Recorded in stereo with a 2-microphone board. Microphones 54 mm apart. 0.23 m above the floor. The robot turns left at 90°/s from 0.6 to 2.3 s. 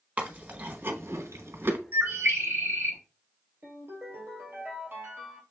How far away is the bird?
About 0.9 m.